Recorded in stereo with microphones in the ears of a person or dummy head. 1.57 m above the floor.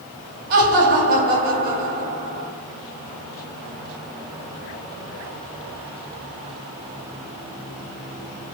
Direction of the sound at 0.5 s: 45° right (ahead or behind).